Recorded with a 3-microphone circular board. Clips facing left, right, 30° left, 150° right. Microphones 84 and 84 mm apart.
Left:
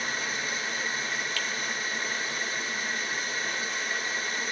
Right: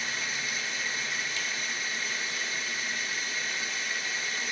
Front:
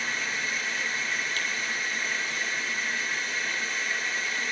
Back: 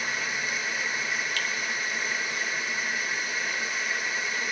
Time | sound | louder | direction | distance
0.0 | running water | left 3 dB, back 1 dB | 135° left | 1.8 m
1.4 | a finger snap | left 3 dB, back 1 dB | 20° right | 1.5 m